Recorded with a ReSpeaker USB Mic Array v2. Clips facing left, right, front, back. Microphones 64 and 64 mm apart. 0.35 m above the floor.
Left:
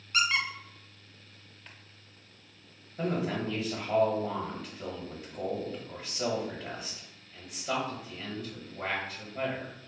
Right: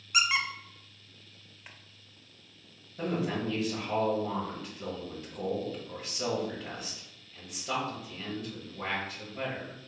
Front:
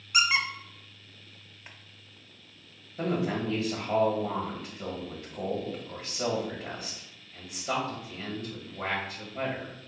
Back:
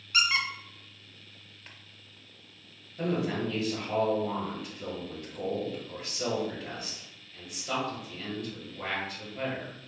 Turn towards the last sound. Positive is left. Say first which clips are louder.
# even, front 1 dB
turn(degrees=20)